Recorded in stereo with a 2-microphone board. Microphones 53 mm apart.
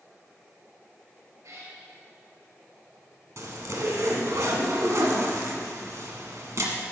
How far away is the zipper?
About 1.4 m.